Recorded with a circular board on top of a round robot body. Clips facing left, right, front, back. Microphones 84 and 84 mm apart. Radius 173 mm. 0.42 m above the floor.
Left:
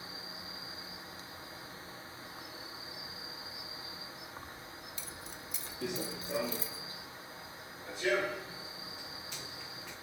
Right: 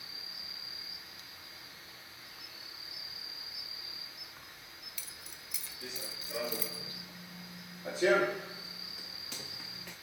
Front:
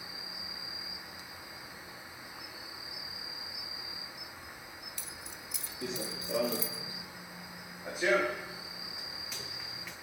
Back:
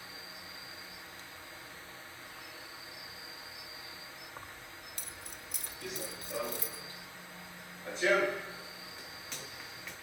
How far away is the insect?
About 1.0 m.